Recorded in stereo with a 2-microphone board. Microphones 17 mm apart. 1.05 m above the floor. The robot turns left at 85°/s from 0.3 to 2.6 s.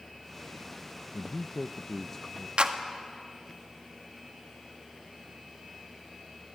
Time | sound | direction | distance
1.1 | a man speaking | 105° left | 0.5 m
2.6 | a clap | 60° right (ahead or behind) | 1.5 m